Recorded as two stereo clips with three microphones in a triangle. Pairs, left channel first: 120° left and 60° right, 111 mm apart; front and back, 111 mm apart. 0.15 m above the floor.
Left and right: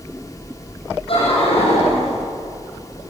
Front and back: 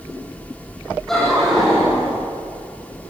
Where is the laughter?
85° left, 7 m; by 2.1 s 100° left, 7 m.